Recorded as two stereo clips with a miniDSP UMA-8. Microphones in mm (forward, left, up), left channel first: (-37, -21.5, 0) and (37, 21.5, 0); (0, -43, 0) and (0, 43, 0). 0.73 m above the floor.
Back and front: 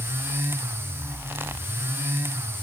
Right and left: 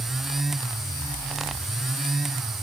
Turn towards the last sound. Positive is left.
No sound to turn to.